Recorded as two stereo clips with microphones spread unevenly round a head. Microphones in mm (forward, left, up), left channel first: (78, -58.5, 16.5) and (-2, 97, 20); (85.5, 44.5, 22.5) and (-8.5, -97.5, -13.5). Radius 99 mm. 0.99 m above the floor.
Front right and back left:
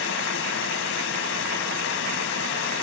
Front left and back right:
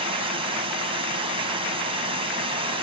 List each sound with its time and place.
0.0 s running water: 60° right, 2.5 m